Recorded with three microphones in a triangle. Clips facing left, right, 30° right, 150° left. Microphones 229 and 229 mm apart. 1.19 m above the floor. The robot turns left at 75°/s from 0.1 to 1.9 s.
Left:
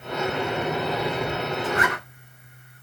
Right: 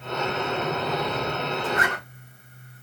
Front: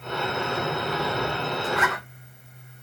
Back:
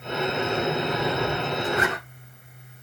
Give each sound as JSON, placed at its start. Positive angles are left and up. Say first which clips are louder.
{"t": 1.6, "sound": "a zipper", "louder": "left 2 dB, back 2 dB", "azimuth_deg": -30, "distance_m": 3.0}